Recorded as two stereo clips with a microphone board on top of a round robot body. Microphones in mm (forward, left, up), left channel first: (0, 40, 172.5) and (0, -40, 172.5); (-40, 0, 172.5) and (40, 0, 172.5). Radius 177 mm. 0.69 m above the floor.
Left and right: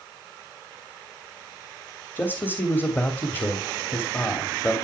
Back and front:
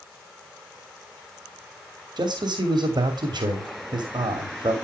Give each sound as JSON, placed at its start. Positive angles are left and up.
{"t": 2.2, "sound": "a man speaking", "azimuth_deg": 25, "distance_m": 3.0}